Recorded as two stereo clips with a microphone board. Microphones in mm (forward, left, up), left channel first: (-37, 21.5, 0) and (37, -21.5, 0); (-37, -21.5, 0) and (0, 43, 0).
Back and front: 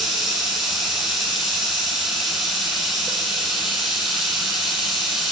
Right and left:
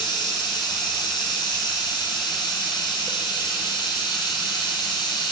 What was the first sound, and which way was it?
Running water, 120° right.